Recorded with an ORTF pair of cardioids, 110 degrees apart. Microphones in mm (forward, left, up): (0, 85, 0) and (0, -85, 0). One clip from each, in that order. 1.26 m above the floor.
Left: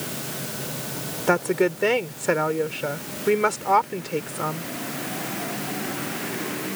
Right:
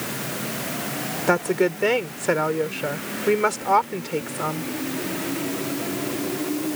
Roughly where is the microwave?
I don't hear a microwave.